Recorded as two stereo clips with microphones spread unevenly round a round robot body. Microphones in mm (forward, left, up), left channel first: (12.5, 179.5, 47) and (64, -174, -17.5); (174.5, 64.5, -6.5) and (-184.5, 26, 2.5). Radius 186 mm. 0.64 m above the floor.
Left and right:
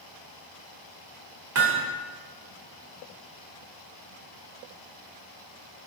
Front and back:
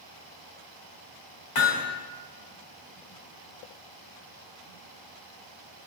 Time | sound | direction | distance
1.6 | hammering | 35° right | 1.7 m